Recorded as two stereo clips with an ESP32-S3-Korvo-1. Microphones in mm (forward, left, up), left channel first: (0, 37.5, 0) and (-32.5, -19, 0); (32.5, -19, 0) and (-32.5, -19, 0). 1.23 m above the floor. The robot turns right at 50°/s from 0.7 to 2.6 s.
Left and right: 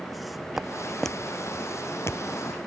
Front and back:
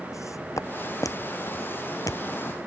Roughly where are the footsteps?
Ahead right.